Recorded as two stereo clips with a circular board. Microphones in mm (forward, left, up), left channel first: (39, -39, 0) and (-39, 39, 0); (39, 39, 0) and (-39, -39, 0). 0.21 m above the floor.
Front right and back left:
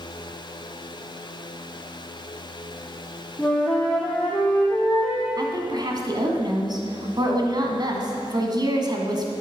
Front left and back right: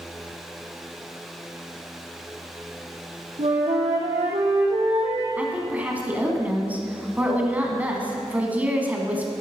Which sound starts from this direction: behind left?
A woman speaking, at 5.4 s.